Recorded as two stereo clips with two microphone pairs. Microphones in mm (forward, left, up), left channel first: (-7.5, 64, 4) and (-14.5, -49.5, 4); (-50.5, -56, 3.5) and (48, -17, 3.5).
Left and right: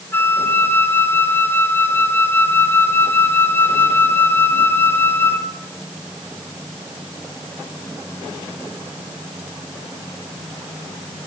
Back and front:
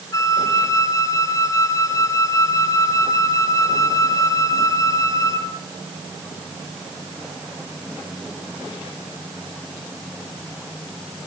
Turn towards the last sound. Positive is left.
turn(degrees=155)